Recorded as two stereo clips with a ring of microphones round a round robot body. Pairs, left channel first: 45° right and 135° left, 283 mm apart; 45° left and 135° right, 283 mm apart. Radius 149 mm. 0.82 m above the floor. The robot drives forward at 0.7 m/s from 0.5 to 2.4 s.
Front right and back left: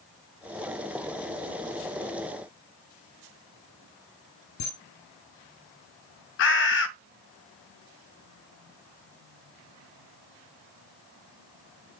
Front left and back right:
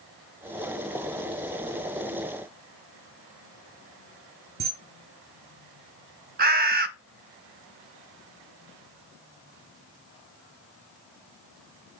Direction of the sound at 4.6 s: 75° right.